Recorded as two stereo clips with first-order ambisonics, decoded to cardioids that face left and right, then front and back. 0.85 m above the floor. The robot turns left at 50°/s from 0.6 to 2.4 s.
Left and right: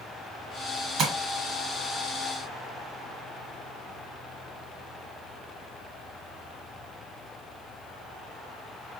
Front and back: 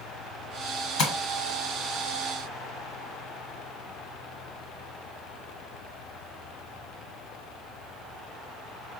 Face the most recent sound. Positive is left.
turn(degrees=-110)